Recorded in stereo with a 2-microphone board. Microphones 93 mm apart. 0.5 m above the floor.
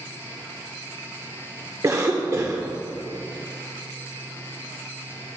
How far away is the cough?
About 1.0 m.